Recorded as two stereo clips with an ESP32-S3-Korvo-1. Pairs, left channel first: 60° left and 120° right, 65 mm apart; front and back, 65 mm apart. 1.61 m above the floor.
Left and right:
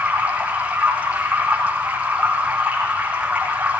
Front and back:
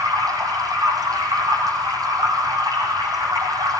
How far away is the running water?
About 7.5 m.